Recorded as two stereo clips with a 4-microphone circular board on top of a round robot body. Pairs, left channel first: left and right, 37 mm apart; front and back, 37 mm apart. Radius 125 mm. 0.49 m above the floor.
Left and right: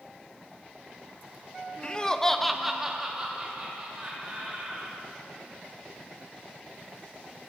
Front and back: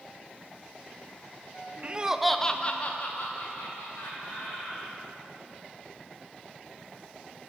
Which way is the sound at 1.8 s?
140° left.